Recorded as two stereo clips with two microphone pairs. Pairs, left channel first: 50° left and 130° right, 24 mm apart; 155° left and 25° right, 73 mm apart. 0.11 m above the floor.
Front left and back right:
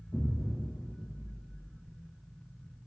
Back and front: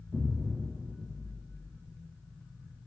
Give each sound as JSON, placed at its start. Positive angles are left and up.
{"t": 0.1, "sound": "an explosion", "azimuth_deg": 50, "distance_m": 2.0}